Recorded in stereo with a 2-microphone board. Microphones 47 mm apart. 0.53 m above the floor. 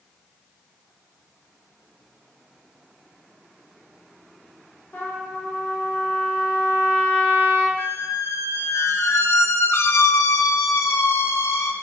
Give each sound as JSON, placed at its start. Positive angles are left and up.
{"t": 4.9, "sound": "a trumpet", "side_deg": 40, "distance_m": 1.6}
{"t": 7.8, "sound": "a squeak", "side_deg": 80, "distance_m": 0.6}